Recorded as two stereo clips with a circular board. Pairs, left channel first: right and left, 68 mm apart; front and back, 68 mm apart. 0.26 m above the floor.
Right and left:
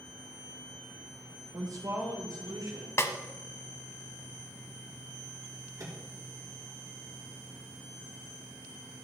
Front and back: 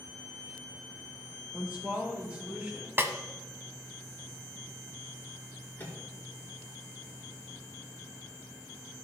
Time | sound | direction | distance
1.5 | a woman speaking | 125° left | 4 m
3.0 | a snare drum | 130° right | 0.9 m
5.8 | a microwave | 60° left | 3 m